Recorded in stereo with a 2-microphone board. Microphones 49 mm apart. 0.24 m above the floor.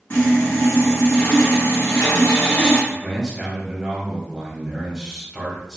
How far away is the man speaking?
About 1.3 m.